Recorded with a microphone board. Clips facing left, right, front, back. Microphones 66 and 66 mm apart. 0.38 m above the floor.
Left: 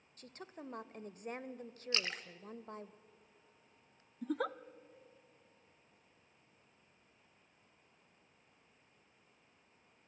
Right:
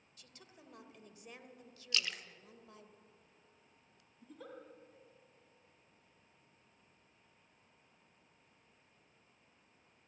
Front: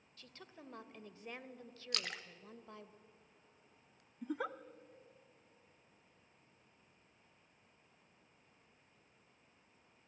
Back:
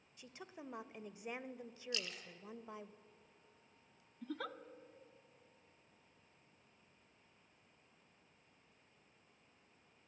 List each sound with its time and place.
0.2 s a woman speaking: 110° left, 1.2 m
1.9 s a splash: 30° left, 1.1 m
4.2 s a giggle: 75° left, 0.6 m